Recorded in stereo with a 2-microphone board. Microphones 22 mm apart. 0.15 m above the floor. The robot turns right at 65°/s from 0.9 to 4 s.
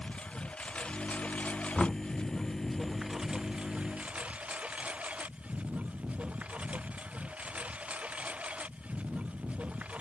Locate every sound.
0.0 s a lawn mower: 50° left (ahead or behind); by 10.0 s 80° right
1.8 s knocking: 10° left (ahead or behind); by 2.0 s 15° left (ahead or behind)